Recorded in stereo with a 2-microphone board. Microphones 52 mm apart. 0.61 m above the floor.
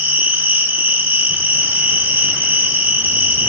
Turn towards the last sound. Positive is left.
turn(degrees=-35)  # may be behind; listen again after turning